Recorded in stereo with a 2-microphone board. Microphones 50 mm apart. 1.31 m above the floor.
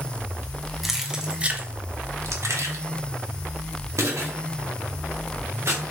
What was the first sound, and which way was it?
Keys jangling, centre (ahead or behind).